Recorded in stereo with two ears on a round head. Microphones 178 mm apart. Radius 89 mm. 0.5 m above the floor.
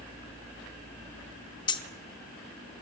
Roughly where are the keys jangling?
Left.